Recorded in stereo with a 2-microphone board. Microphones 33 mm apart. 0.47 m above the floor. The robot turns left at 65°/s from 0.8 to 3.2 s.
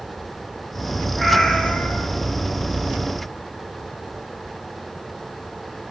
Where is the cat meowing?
Straight behind, 5 m; by 2.1 s 125° left, 5 m.